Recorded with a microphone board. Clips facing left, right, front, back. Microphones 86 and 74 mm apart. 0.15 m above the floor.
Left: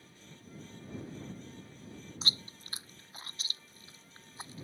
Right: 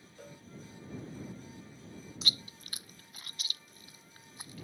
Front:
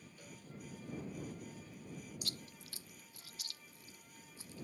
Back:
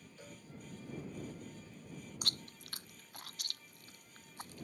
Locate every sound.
0.2 s a cowbell: 115° right
2.2 s chewing: 150° left